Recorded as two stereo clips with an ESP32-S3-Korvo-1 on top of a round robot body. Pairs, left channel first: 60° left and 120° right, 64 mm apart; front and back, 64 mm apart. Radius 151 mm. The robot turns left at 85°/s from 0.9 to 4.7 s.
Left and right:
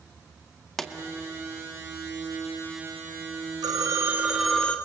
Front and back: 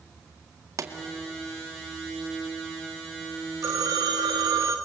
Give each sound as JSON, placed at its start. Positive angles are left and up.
{"t": 0.8, "sound": "a pop", "azimuth_deg": 145, "distance_m": 1.9}
{"t": 3.6, "sound": "a phone ringing", "azimuth_deg": -140, "distance_m": 2.5}